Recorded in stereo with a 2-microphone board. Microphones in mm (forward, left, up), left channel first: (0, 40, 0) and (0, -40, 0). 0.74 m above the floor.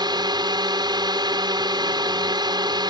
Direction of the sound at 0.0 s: 60° right (ahead or behind).